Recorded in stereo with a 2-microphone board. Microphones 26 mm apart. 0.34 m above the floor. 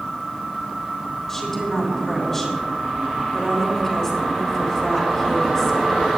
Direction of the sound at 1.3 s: 10° left (ahead or behind).